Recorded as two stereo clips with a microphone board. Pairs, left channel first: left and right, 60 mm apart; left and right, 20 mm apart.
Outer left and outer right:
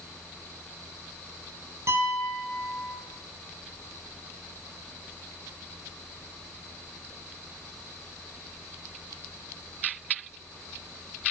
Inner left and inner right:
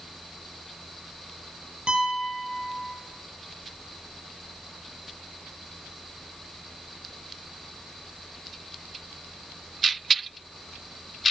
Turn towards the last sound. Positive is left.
turn(degrees=-50)  # may be behind; listen again after turning